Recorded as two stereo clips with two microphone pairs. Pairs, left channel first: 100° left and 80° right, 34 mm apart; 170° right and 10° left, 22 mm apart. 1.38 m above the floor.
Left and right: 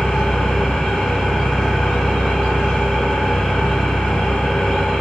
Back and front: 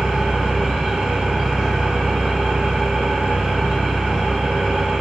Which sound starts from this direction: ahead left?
An engine running, at 0.0 s.